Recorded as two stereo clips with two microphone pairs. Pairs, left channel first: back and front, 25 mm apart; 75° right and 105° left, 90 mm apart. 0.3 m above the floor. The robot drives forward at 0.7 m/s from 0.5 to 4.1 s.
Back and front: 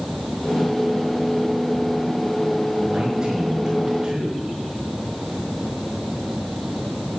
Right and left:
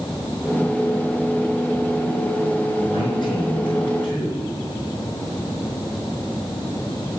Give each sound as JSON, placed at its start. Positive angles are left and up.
{"t": 2.9, "sound": "a man speaking", "azimuth_deg": -60, "distance_m": 5.5}